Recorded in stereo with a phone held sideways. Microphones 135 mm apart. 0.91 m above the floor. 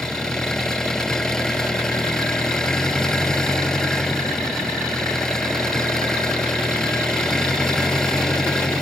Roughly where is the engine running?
Centre.